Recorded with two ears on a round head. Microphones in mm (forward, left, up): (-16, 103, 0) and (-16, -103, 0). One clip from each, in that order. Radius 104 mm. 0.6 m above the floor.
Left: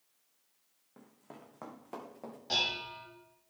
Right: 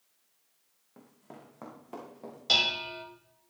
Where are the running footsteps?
Centre (ahead or behind), 2.5 m; by 2.4 s 25° left (ahead or behind), 4 m.